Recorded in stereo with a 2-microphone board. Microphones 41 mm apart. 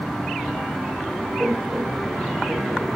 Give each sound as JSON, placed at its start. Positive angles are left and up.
{"t": 1.4, "sound": "laughter", "side_deg": -15, "distance_m": 0.9}